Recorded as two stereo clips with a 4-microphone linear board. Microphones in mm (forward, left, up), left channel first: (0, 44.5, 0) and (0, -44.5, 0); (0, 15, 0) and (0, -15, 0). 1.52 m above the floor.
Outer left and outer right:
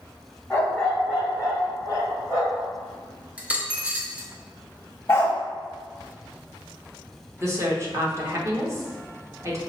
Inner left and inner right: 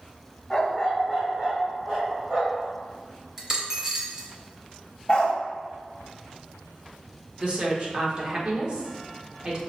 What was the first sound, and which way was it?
A dog barking, 20° left (ahead or behind).